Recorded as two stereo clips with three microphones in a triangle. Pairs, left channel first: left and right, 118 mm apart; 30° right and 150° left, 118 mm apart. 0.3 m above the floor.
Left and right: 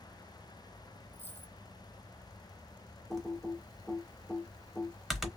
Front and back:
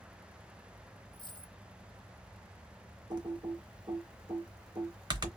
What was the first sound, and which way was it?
A dropped coin, 15° left.